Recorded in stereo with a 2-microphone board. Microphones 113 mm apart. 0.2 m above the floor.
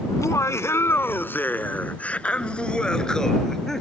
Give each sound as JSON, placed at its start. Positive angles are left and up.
{"t": 0.1, "sound": "laughter", "side_deg": 30}